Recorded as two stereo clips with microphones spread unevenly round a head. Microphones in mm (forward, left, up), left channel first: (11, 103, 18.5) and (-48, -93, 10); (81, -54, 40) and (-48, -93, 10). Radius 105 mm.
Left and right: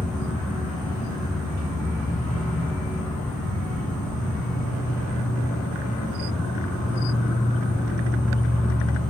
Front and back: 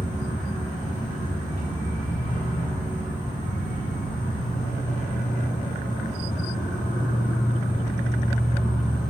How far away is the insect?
About 1.8 m.